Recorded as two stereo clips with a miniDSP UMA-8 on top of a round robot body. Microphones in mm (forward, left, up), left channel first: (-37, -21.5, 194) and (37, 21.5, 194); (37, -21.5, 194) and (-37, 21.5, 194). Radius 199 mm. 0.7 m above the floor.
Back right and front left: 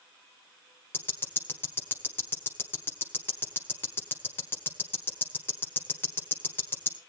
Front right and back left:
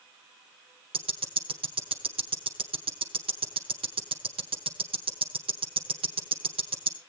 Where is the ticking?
145° left, 1.6 m.